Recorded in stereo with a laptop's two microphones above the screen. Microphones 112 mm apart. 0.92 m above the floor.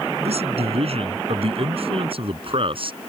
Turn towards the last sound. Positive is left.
turn(degrees=-50)  # may be behind; listen again after turning